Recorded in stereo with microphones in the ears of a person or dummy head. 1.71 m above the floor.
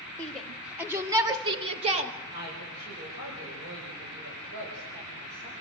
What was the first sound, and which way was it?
A shout, 15° left (ahead or behind).